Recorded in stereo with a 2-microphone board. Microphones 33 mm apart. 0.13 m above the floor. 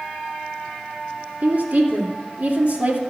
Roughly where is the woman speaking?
Right.